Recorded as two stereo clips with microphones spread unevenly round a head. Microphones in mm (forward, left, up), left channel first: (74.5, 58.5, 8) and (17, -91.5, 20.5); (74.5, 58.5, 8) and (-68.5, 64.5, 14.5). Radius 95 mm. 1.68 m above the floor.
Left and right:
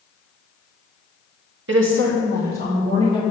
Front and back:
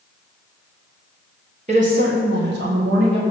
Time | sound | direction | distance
1.7 | a woman speaking | 125° right | 1.3 m